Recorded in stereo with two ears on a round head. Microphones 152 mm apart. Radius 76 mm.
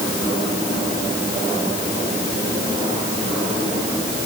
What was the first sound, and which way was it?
Only background noise.